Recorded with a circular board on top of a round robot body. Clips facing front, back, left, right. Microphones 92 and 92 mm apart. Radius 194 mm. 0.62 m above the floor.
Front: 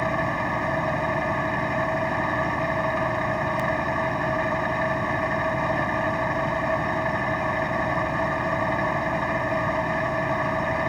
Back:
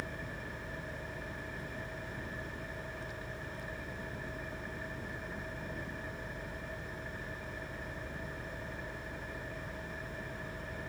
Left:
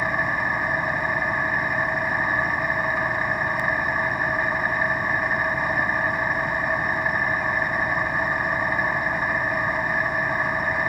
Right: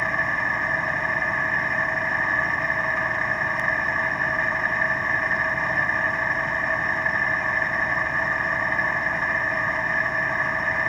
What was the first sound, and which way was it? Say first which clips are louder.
An engine running: front 19 dB, left 1 dB; 10° left.